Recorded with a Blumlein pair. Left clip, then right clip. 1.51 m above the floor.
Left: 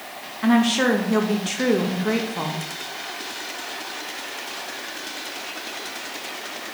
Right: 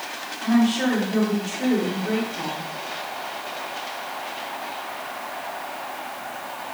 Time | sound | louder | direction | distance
0.4 | a woman speaking | left 3 dB | 35° left | 1.8 m